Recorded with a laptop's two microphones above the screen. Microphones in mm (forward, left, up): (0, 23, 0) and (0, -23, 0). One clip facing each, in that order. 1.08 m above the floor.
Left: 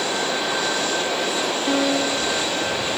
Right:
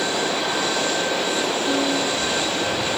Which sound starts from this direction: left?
A piano, at 1.7 s.